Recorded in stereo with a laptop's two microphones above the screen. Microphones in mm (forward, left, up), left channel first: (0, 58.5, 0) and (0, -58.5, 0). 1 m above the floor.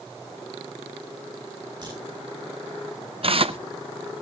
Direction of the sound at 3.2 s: 55° right (ahead or behind).